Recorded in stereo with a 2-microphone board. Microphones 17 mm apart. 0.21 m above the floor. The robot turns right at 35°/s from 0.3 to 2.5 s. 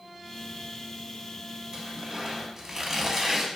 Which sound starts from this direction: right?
Tearing paper, at 1.7 s.